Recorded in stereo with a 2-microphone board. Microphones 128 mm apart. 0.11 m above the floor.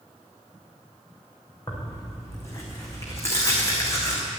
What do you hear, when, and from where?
1.7 s tearing paper: 25° left (ahead or behind), 3.5 m